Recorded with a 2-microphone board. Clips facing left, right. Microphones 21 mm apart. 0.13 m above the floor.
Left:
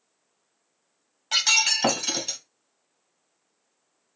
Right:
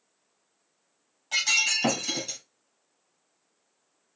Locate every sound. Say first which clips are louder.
1.3 s breaking glass: left 3 dB; 40° left (ahead or behind), 2.0 m